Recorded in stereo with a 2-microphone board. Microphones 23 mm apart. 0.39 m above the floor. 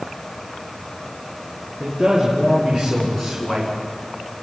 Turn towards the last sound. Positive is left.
turn(degrees=15)  # may be behind; listen again after turning